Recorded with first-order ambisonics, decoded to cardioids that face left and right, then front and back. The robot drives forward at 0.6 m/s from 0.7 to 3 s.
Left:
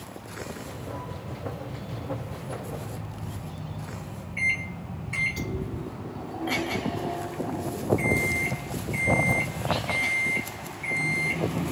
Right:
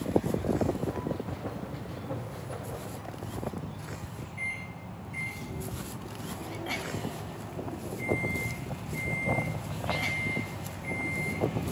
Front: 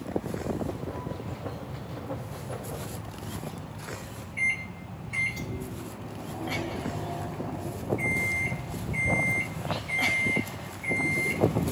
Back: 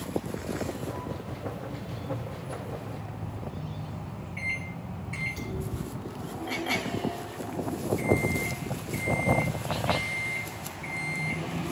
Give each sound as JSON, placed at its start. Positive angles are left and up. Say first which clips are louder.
{"t": 4.4, "sound": "a microwave", "louder": "left 10 dB, front 5 dB", "azimuth_deg": 100, "distance_m": 2.0}